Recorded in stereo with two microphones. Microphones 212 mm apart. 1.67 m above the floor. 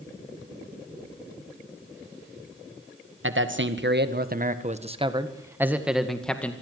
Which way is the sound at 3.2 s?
70° right (ahead or behind).